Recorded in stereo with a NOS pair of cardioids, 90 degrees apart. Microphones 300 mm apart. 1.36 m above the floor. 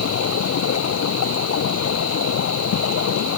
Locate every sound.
0.0 s running water: 60° left